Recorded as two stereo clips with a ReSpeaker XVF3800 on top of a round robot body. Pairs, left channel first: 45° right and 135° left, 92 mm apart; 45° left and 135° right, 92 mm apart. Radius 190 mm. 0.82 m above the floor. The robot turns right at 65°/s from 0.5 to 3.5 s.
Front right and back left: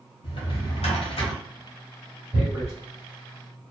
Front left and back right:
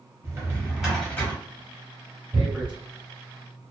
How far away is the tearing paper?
About 0.6 m.